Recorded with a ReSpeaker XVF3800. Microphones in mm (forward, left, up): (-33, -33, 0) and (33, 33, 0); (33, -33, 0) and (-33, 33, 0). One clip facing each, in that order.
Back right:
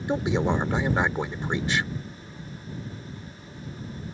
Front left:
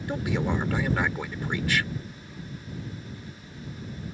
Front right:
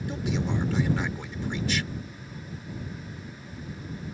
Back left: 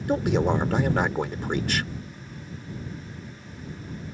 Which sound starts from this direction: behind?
A man speaking, at 0.1 s.